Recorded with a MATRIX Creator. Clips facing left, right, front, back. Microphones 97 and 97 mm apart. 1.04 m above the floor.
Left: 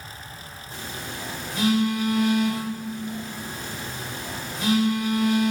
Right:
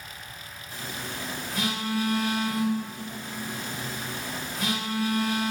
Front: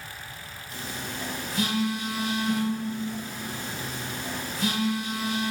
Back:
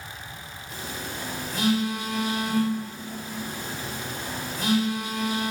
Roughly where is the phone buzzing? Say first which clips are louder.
Left 1 dB, back 1 dB; behind left.